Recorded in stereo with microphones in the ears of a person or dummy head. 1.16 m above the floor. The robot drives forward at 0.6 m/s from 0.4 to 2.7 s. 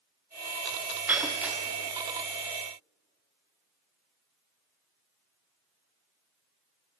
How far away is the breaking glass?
About 1.0 m.